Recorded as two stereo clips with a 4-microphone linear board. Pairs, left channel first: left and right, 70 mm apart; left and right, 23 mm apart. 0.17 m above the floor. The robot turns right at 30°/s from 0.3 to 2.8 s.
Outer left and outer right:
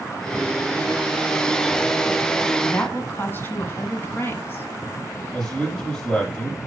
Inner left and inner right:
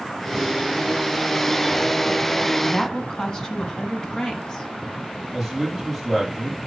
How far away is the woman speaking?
About 1.4 m.